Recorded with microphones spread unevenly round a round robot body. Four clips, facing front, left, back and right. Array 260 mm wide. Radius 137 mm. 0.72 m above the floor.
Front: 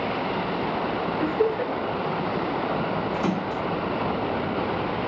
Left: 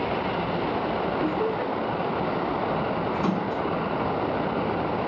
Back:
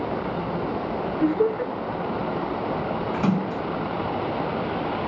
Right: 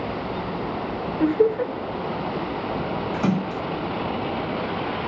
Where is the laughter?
100° right, 3.5 m.